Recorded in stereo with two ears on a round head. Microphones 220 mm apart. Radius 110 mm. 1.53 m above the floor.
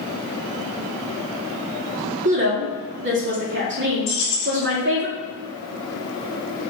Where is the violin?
I don't hear a violin.